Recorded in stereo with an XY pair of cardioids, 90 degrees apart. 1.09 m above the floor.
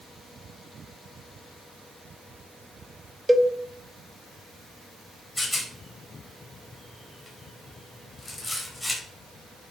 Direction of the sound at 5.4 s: 20° left.